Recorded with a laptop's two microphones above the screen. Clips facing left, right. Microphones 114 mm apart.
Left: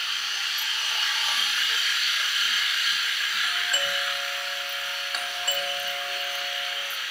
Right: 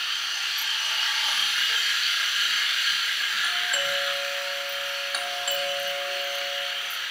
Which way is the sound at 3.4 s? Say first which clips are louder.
Right 2 dB; 5° right (ahead or behind).